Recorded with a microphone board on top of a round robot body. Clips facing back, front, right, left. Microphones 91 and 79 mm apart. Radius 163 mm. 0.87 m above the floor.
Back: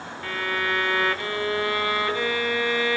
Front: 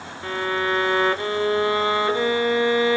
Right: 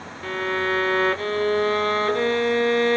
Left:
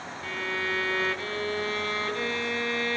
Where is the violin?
60° right, 0.7 m.